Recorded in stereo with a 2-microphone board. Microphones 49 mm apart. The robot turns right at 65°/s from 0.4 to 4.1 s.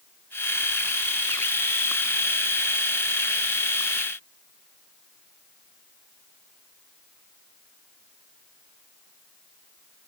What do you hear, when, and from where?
Only background noise.